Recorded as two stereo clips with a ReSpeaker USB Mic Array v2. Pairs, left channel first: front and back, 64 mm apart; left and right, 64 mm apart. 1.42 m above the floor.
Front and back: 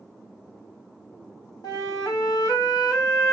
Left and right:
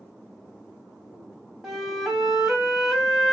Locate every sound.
1.6 s a flute: 5° right, 1.2 m